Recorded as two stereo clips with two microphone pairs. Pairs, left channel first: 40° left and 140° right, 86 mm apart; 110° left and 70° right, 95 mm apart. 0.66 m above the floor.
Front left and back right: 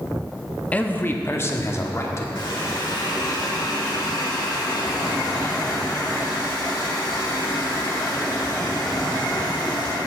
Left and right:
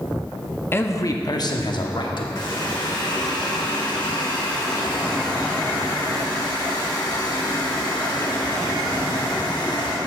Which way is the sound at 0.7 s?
90° left.